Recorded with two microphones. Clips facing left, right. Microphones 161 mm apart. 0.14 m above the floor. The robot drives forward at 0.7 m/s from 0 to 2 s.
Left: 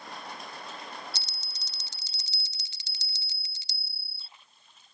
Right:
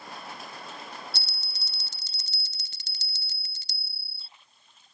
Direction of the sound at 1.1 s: 55° right (ahead or behind).